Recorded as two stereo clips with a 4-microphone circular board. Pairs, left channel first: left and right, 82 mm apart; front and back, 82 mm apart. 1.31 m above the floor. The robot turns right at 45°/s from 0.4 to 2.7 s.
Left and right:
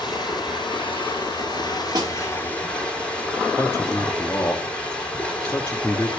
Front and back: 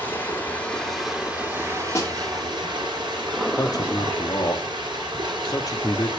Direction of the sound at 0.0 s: 65° left.